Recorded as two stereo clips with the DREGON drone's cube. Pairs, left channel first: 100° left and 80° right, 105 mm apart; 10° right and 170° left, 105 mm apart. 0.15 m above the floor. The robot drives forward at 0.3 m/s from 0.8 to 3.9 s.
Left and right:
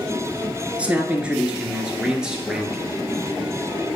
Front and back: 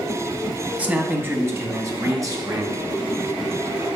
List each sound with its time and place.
0.8 s a man speaking: 135° right, 1.1 m; by 3.0 s 160° right, 1.5 m